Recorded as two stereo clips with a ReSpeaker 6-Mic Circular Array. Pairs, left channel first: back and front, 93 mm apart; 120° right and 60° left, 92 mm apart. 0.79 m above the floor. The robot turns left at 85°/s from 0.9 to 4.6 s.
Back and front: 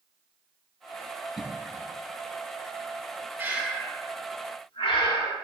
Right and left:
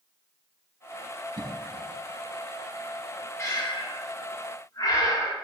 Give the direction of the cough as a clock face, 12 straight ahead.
9 o'clock.